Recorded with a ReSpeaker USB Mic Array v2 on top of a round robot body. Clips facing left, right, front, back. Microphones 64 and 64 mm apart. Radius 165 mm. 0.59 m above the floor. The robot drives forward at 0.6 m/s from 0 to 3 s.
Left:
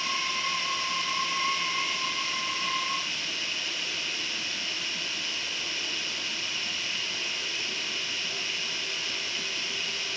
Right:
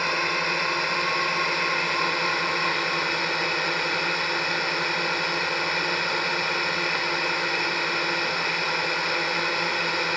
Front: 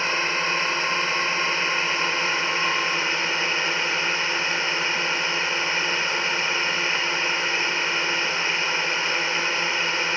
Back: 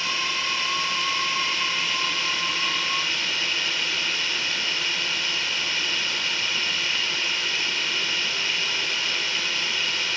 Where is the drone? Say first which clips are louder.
Right 6 dB, front 4 dB; 55° right; by 10.2 s 60° right.